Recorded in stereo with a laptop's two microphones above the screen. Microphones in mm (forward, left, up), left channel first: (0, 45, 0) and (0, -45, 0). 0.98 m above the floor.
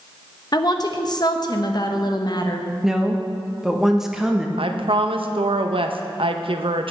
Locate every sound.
0.5 s a woman speaking: 45° left (ahead or behind), 1.0 m
2.8 s a woman speaking: 5° right (ahead or behind), 1.1 m
4.6 s a woman speaking: 65° right (ahead or behind), 0.7 m